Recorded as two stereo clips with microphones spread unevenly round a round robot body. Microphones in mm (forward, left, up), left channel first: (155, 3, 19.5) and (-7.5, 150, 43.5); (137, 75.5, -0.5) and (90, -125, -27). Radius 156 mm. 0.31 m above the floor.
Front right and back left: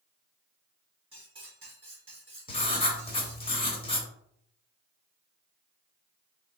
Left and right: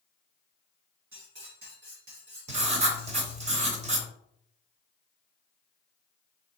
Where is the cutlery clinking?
150° right, 1.3 m.